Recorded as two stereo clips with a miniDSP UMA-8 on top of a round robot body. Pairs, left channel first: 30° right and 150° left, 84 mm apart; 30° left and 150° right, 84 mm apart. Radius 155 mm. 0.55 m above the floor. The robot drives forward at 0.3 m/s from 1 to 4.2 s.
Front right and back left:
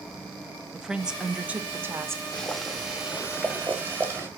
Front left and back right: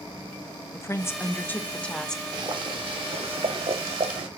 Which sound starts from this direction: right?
Boiling, at 2.3 s.